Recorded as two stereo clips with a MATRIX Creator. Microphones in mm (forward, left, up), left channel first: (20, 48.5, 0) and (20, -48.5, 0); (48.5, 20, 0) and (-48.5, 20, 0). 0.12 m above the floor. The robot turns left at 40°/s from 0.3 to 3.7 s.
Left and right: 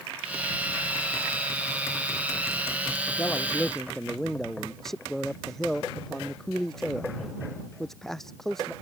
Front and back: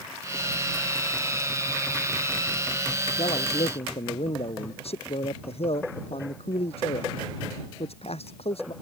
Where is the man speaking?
25° left; by 8.7 s 5° left.